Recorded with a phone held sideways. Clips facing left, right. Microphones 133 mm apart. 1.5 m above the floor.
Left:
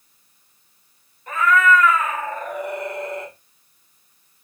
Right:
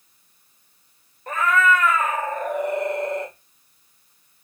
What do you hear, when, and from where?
1.3 s a cat meowing: 50° right (ahead or behind), 1.7 m